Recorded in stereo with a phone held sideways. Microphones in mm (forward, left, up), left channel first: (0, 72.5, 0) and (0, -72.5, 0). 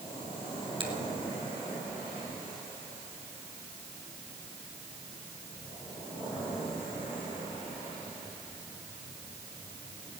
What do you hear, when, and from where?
0.8 s a finger snap: 35° right (ahead or behind), 3.5 m